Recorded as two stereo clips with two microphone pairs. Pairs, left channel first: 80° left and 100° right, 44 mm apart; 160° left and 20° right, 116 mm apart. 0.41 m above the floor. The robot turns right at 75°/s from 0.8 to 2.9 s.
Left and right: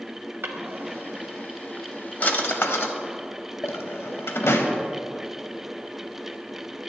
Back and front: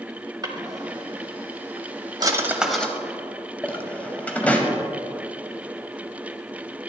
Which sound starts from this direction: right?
A drawer, at 0.4 s.